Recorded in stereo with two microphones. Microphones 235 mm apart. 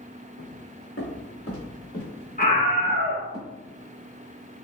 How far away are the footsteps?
About 2.0 m.